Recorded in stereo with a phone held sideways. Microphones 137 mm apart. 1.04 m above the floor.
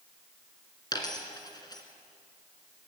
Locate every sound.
0.9 s a dropped coin: 30° left (ahead or behind), 2.5 m